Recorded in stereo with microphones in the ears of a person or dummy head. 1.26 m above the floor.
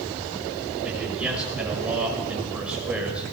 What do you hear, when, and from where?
0.8 s a man speaking: 5° right (ahead or behind), 5.5 m